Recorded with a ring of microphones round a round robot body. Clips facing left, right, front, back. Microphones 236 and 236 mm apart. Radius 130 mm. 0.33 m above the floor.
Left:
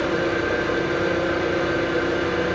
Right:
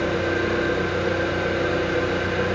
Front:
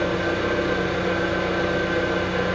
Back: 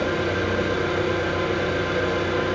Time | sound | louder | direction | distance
0.0 | an engine running | left 1 dB, even | 170° left | 1.0 m